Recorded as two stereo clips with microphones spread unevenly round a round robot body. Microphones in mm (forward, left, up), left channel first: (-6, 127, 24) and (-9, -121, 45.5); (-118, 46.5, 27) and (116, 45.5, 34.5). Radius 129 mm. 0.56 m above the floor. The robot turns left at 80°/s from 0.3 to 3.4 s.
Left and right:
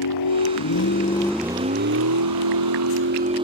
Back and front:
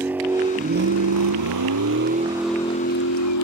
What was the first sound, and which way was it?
A vehicle, 85° left.